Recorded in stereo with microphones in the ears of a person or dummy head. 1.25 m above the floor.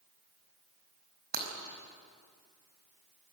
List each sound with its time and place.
1.3 s breaking glass: 60° right (ahead or behind), 5 m